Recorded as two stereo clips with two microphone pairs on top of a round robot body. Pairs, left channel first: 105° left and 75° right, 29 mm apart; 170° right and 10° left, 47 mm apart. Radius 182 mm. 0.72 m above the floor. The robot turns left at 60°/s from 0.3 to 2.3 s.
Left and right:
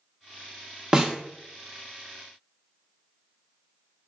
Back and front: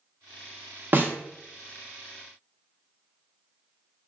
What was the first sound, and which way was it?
A snare drum, 10° right.